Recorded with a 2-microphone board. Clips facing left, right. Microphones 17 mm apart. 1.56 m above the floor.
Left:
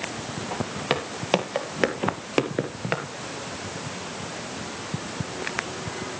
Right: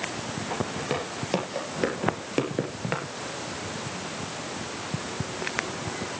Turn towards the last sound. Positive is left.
turn(degrees=15)  # may be behind; listen again after turning